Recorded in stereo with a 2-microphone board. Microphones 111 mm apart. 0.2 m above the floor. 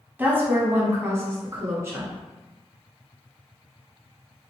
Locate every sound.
0.2 s a woman speaking: 20° right (ahead or behind), 1.2 m; by 2.1 s 25° right (ahead or behind), 1.9 m